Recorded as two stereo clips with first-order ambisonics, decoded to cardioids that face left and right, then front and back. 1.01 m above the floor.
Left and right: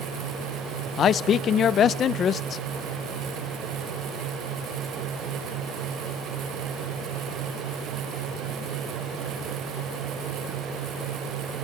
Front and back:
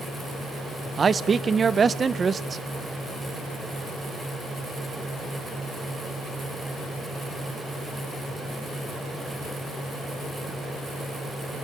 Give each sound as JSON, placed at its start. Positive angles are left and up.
{"t": 1.0, "sound": "a man speaking", "azimuth_deg": 125, "distance_m": 0.6}